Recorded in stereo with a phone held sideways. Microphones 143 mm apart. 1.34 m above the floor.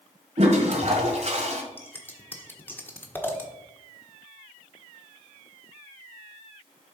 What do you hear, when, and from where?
0.4 s a toilet flushing: 50° right (ahead or behind), 1.7 m
1.8 s scissors: 15° left (ahead or behind), 1.2 m